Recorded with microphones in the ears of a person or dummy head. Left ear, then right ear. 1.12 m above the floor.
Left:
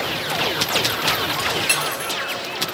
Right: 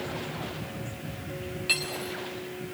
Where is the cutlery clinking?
35° left (ahead or behind), 1.2 m.